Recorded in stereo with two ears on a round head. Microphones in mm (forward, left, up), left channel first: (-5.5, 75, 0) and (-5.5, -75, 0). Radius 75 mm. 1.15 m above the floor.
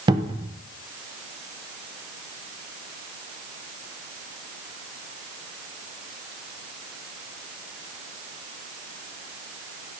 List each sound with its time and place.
0.1 s a cupboard door: 25° right (ahead or behind), 0.6 m